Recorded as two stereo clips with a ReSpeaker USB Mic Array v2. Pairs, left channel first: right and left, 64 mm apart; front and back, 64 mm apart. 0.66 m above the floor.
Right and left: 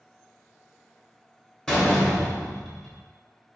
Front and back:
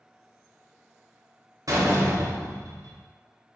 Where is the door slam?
170° right, 1.0 m.